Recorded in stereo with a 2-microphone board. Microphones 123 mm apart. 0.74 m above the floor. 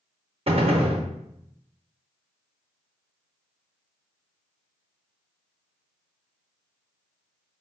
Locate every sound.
0.5 s a gunshot: 50° right (ahead or behind), 0.6 m